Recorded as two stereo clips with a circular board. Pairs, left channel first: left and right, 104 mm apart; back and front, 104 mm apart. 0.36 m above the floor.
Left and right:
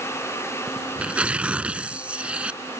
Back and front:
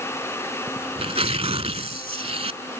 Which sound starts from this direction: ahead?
Tearing paper, at 0.7 s.